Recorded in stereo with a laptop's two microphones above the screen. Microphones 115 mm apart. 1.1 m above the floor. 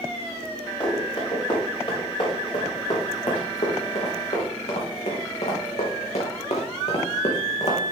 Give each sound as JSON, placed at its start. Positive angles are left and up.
{"t": 0.8, "sound": "running footsteps", "side_deg": 45, "distance_m": 5.0}